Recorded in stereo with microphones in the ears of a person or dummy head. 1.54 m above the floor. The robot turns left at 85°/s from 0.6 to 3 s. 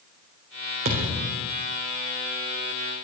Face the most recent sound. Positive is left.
turn(degrees=55)